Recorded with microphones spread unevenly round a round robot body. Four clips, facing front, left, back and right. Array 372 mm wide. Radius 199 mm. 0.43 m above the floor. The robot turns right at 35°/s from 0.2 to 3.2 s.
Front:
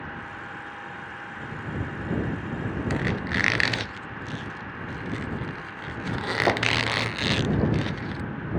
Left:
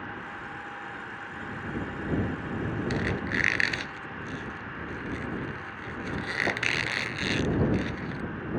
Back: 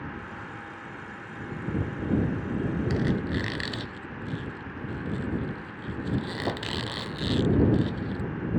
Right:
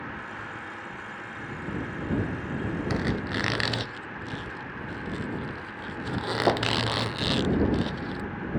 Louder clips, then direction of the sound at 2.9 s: Right 1 dB, front 1 dB; 45° right.